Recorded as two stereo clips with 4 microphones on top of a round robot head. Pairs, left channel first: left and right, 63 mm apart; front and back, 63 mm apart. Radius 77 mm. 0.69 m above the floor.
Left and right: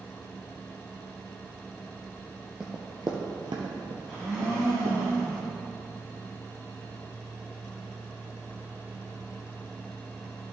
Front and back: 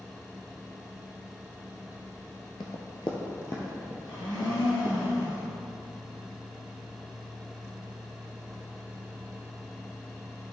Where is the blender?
5° left, 2.5 m.